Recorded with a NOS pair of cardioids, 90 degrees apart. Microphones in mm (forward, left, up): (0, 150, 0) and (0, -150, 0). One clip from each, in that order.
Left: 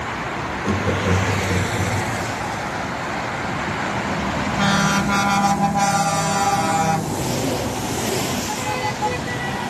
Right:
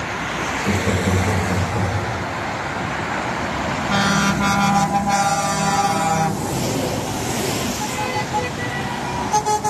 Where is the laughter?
10° left, 1.0 m; by 2.1 s 25° right, 1.7 m.